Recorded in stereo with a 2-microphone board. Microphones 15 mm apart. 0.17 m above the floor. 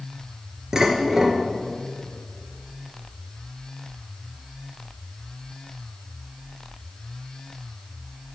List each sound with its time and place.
0.7 s dishes clattering: 20° right (ahead or behind), 1.8 m